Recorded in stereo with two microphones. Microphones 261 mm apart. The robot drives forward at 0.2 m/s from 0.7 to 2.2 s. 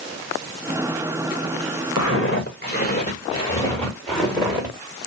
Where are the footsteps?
60° left (ahead or behind), 1.2 m; by 4.8 s 10° right (ahead or behind), 1.8 m.